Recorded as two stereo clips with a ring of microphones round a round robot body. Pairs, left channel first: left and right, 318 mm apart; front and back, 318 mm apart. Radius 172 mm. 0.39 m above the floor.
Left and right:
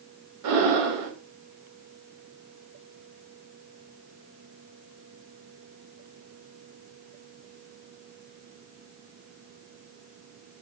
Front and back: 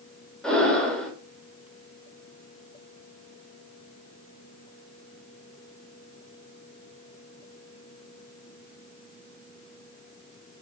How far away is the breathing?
About 0.7 m.